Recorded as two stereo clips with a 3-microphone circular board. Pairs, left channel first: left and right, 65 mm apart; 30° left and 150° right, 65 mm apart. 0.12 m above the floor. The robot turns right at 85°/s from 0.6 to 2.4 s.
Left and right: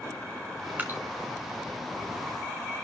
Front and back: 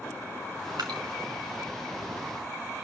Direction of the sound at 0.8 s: 155° right.